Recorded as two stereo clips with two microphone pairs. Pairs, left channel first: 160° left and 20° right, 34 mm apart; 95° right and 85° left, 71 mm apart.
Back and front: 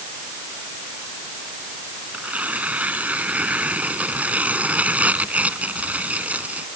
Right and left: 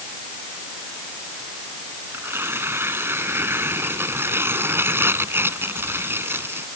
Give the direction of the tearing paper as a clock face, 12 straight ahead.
11 o'clock.